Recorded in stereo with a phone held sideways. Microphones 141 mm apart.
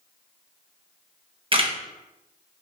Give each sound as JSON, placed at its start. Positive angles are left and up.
{"t": 1.5, "sound": "a camera shutter", "side_deg": -40, "distance_m": 1.0}